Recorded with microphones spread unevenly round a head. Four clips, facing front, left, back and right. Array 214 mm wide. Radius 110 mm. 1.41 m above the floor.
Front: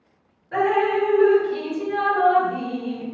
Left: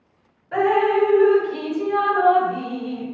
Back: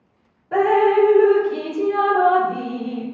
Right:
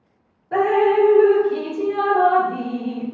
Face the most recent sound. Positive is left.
turn(degrees=-130)